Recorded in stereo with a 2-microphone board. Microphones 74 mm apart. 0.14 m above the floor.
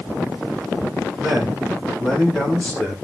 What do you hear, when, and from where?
1.2 s a man speaking: 5° right (ahead or behind), 7 m; by 3.0 s 15° left (ahead or behind), 7 m